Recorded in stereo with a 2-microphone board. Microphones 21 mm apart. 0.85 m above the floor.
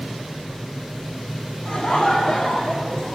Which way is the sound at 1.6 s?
45° left (ahead or behind).